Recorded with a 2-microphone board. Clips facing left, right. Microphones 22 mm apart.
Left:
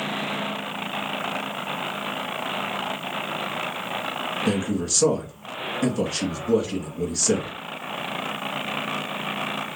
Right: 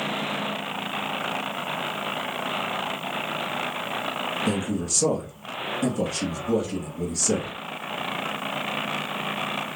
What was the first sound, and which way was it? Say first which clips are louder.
A man speaking: left 5 dB; 30° left (ahead or behind).